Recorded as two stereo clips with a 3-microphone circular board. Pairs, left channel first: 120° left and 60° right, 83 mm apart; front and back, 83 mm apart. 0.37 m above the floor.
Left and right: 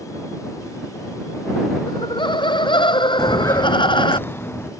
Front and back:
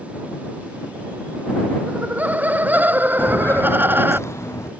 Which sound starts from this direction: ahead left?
Footsteps, at 3.2 s.